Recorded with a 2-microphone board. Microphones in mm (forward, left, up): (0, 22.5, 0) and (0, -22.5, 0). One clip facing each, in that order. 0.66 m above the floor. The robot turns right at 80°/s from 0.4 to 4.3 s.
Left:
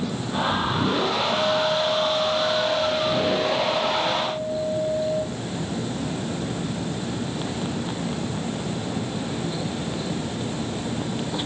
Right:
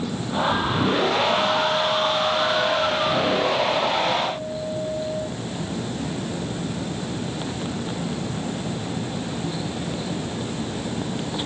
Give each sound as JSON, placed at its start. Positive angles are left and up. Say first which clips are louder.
{"t": 1.3, "sound": "a guitar", "louder": "right 1 dB", "azimuth_deg": -165, "distance_m": 3.5}